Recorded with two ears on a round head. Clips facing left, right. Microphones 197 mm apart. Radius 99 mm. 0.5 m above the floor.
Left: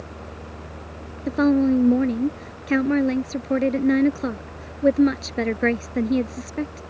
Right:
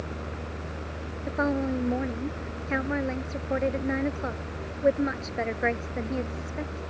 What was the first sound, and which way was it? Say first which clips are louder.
A woman speaking: left 10 dB; 45° left (ahead or behind).